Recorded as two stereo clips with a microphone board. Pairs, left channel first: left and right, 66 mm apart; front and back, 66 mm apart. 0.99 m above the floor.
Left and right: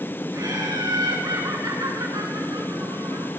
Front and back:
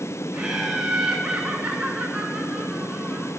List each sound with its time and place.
0.3 s laughter: 100° right, 8.5 m